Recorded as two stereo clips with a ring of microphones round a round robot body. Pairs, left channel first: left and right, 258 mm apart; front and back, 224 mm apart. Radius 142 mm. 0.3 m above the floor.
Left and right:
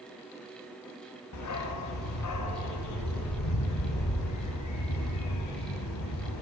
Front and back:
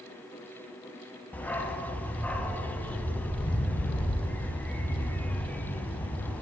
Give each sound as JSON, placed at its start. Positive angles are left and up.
{"t": 1.3, "sound": "a dog barking", "azimuth_deg": 85, "distance_m": 1.0}